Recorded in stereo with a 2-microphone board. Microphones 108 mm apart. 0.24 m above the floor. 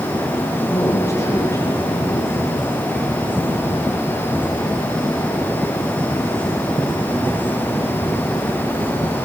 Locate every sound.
0.7 s a man speaking: 30° left (ahead or behind), 7 m